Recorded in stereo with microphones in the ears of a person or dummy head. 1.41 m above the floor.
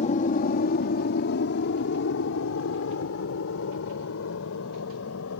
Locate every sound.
0.0 s an aircraft: 40° left (ahead or behind); by 5.4 s 80° left